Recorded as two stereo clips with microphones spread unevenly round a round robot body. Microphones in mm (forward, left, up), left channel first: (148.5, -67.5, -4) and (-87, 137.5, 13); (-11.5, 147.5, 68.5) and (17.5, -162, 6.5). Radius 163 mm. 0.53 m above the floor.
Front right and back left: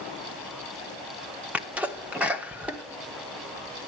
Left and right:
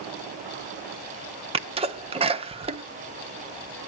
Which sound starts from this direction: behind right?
A sneeze, at 1.5 s.